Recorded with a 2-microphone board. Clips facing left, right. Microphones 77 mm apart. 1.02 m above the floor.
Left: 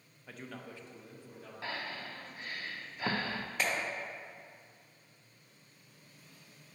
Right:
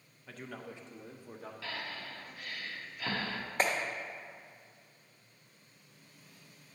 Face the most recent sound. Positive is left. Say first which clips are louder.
# right 4 dB
turn(degrees=-35)  # may be behind; listen again after turning